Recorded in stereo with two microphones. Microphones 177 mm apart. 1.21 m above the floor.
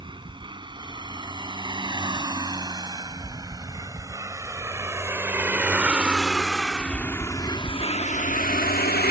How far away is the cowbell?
No cowbell in this recording.